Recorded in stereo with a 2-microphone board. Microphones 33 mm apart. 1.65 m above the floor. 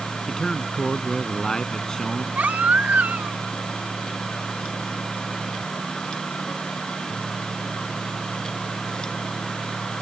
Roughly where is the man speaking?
Centre.